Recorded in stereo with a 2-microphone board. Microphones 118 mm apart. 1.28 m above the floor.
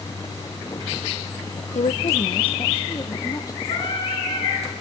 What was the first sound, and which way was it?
A woman speaking, 85° left.